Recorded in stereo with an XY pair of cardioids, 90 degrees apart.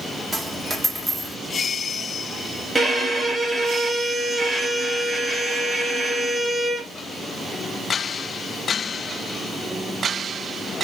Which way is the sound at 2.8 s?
15° right.